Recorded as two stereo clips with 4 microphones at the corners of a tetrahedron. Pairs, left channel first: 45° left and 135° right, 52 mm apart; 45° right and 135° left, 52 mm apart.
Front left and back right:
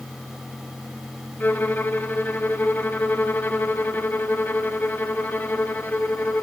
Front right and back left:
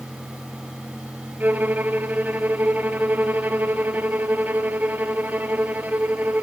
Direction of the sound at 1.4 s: 85° left.